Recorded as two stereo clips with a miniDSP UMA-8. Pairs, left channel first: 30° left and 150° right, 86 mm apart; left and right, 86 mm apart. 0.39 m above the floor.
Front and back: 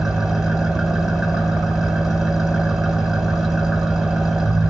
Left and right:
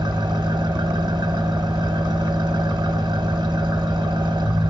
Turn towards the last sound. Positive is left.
turn(degrees=-60)